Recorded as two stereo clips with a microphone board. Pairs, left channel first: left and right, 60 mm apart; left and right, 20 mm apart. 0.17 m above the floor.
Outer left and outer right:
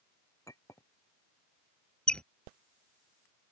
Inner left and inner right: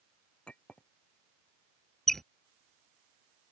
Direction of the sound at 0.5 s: 65° left (ahead or behind).